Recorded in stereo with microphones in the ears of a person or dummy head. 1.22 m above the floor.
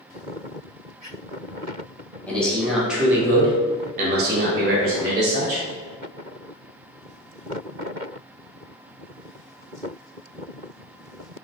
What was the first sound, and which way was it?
A man speaking, 10° left (ahead or behind).